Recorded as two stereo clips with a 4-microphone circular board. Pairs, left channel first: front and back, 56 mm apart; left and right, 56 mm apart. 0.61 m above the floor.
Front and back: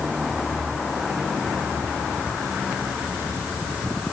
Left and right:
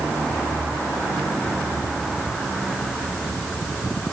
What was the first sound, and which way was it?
Only background noise.